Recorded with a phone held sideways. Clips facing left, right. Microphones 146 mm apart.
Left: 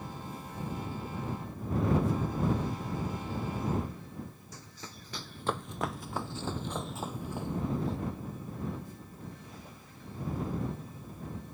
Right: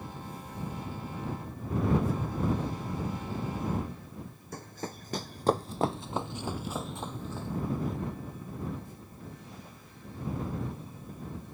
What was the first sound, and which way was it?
Running footsteps, 55° right (ahead or behind).